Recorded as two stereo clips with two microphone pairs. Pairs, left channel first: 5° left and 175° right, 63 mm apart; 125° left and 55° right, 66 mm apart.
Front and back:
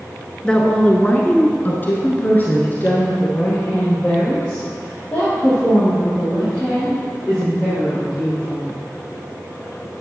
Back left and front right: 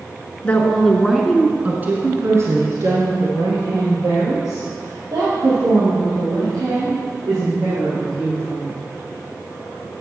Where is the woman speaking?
70° left, 1.9 m; by 8.7 s 70° right, 8 m.